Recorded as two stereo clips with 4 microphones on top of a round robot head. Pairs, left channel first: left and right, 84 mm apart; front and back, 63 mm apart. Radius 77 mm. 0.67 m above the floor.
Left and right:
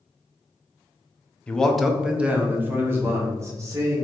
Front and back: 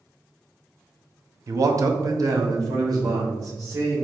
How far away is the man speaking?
About 0.8 m.